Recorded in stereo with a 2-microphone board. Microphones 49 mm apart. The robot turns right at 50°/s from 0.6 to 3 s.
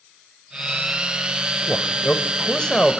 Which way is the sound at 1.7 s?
20° left (ahead or behind).